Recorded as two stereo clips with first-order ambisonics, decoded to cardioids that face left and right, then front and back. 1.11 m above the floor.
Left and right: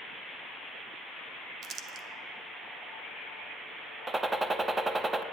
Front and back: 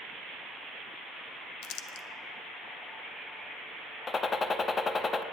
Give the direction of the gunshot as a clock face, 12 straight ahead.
1 o'clock.